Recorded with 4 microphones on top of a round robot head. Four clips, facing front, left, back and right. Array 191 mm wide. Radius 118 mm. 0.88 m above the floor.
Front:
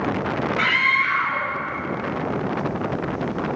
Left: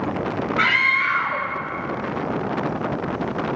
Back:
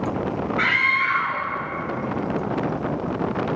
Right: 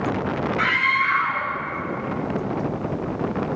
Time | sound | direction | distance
0.6 | a scream | 85° left | 5.5 m